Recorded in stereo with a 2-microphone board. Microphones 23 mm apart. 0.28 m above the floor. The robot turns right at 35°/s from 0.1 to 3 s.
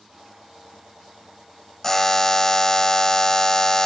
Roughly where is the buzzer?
Centre.